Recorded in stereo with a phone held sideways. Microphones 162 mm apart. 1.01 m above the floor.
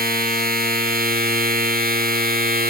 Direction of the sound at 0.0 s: 70° right (ahead or behind).